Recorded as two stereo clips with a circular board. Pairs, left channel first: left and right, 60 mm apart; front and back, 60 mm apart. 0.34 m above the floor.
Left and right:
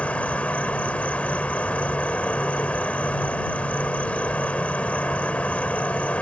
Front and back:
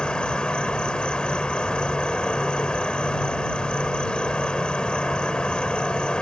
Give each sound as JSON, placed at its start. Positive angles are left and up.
{"t": 0.0, "sound": "an insect", "azimuth_deg": 55}